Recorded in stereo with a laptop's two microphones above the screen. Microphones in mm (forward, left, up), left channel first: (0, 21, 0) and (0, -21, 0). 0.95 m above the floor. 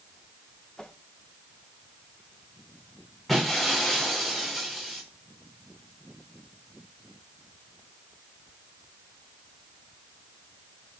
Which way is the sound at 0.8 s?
20° left (ahead or behind).